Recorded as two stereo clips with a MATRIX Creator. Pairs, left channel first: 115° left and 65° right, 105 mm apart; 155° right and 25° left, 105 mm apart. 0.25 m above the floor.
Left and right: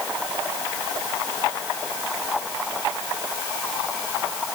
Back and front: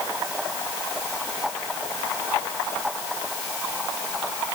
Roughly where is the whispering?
No whispering in this recording.